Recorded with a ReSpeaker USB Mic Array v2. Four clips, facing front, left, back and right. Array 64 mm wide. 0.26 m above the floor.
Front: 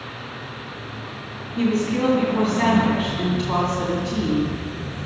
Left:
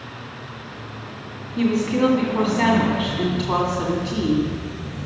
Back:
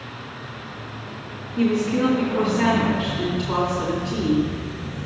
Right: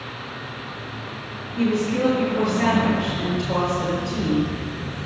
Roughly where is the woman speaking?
Left.